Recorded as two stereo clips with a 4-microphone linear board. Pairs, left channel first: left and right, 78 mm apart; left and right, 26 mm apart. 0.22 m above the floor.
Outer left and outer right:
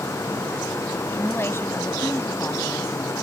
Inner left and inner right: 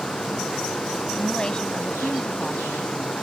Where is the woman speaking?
35° left (ahead or behind).